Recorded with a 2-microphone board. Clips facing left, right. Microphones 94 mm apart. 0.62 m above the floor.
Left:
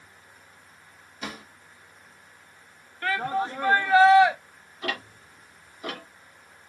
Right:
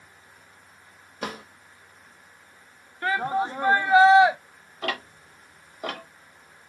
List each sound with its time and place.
1.2 s a drawer: 55° right (ahead or behind), 1.1 m
3.0 s a shout: 20° right (ahead or behind), 0.6 m
4.8 s ticking: 50° right (ahead or behind), 1.6 m